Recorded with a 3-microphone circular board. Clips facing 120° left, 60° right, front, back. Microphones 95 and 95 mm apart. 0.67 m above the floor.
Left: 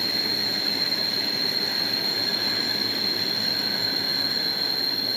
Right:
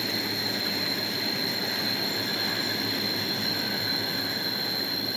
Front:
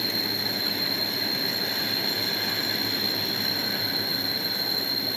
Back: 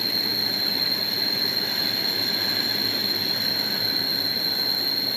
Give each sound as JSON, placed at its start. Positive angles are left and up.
{"t": 0.0, "sound": "an insect", "azimuth_deg": 105, "distance_m": 3.0}